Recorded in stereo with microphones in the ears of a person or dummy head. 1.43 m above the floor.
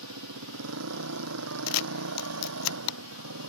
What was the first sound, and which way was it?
A motorcycle, 85° right.